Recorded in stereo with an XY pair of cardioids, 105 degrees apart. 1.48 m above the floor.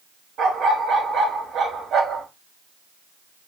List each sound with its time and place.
0.4 s a dog barking: 65° right, 3 m